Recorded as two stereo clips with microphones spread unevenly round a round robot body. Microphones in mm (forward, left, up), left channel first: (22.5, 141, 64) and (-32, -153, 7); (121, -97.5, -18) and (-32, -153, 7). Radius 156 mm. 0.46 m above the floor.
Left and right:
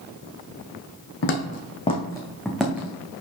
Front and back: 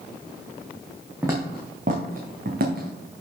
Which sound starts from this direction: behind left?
Footsteps, at 1.2 s.